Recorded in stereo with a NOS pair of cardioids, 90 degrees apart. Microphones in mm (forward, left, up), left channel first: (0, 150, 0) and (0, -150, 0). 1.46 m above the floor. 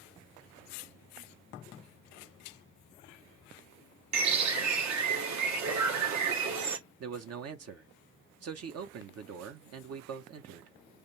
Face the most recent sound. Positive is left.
turn(degrees=-55)